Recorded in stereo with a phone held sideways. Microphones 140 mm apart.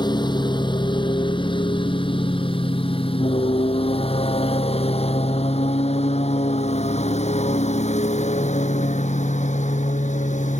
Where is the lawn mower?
30° left (ahead or behind); by 10.6 s 60° left (ahead or behind).